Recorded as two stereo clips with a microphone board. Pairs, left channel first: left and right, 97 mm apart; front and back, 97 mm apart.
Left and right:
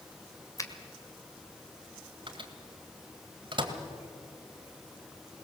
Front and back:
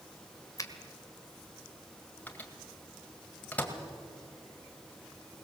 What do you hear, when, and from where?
0.6 s a finger snap: 45° left, 1.7 m
2.3 s a microwave: 70° right, 2.0 m